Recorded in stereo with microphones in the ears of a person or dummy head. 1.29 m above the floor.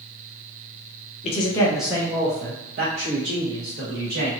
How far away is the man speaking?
About 0.6 m.